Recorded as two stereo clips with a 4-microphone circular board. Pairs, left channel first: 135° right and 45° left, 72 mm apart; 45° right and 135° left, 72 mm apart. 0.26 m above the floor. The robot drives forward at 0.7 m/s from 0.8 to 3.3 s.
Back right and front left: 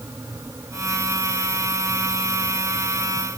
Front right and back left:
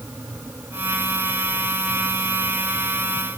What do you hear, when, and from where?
Only background noise.